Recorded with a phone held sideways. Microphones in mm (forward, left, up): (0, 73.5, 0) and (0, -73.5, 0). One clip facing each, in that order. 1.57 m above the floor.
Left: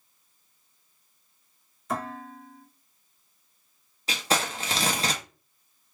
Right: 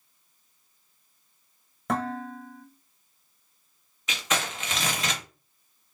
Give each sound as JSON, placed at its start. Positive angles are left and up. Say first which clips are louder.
{"t": 1.9, "sound": "dishes clattering", "louder": "right 4 dB", "side_deg": -65, "distance_m": 1.1}
{"t": 4.1, "sound": "crumpling", "louder": "left 3 dB", "side_deg": 35, "distance_m": 0.8}